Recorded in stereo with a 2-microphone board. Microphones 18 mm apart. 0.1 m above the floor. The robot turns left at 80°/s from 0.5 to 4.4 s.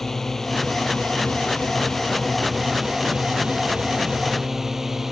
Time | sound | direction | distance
0.0 | a drone | 160° left | ?